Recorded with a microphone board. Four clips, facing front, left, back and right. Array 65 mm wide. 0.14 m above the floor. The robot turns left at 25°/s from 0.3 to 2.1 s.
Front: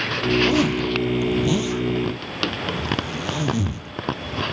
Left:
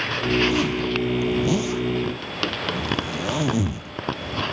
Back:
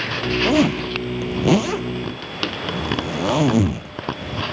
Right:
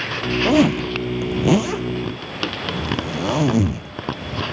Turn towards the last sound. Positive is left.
turn(degrees=-160)